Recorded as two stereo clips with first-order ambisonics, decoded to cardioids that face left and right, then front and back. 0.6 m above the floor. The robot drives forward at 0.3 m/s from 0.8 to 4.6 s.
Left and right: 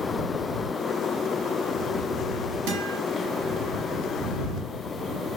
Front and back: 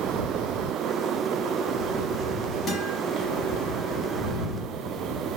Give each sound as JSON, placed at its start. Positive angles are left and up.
{"t": 2.7, "sound": "a guitar", "azimuth_deg": -70, "distance_m": 5.0}